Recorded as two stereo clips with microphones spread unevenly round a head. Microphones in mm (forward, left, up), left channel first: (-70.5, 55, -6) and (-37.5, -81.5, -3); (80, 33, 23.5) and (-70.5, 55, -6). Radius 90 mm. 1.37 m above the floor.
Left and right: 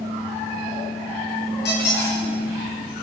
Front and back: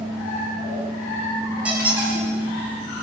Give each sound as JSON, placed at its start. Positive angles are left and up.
{"t": 1.6, "sound": "a squeak", "azimuth_deg": 90, "distance_m": 7.0}